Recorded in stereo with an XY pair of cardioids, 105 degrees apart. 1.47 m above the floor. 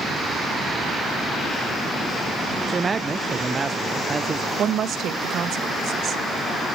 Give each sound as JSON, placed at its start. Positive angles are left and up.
{"t": 2.7, "sound": "a man speaking", "azimuth_deg": -25, "distance_m": 0.7}
{"t": 4.6, "sound": "a woman speaking", "azimuth_deg": -60, "distance_m": 1.7}